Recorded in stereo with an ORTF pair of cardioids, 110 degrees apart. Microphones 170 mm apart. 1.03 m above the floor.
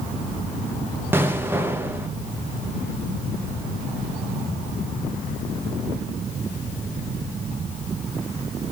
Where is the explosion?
15° right, 0.5 m.